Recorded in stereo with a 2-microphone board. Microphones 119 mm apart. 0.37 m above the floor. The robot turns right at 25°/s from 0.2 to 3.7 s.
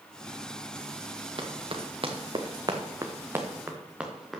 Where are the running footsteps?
50° right (ahead or behind), 2.5 m; by 4.4 s centre (ahead or behind), 3 m.